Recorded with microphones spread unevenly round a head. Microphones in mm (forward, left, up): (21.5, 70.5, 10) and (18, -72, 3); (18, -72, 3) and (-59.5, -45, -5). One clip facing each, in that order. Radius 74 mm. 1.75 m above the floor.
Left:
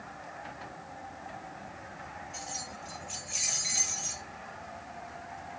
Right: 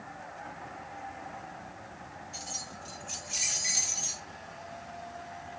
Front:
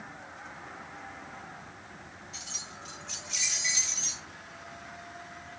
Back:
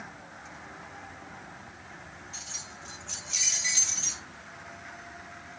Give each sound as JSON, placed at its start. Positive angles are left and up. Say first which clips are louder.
{"t": 2.3, "sound": "keys jangling", "louder": "left 2 dB, even", "azimuth_deg": -105, "distance_m": 4.5}